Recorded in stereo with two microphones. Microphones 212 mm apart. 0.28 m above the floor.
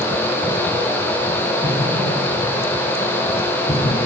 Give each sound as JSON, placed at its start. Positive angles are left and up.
{"t": 1.6, "sound": "an explosion", "side_deg": 25, "distance_m": 9.5}